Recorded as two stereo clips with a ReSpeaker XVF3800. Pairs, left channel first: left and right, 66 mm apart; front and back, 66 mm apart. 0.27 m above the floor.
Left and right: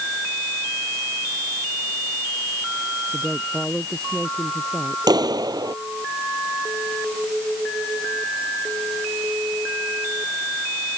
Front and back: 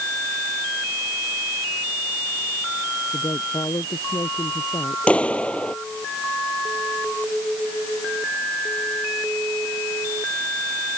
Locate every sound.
3.1 s a woman speaking: 5° left
5.1 s a clap: 75° right